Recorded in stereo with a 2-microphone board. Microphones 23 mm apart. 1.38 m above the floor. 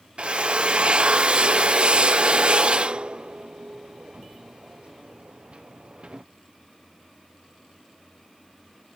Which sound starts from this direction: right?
A drill, at 0.2 s.